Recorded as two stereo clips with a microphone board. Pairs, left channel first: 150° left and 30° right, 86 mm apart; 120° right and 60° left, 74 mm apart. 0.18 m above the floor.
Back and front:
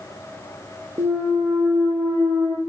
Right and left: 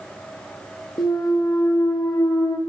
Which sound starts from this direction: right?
A clunk, at 1.0 s.